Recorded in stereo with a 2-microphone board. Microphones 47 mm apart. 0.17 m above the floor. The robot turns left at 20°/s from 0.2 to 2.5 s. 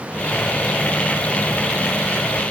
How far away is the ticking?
I don't hear ticking.